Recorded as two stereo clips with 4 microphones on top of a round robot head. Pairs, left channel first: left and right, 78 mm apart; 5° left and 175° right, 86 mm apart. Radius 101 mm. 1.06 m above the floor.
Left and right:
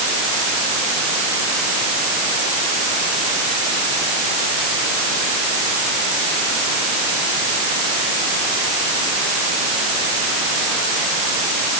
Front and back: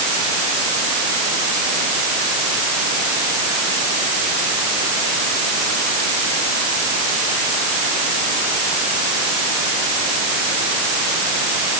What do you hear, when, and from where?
Only background noise.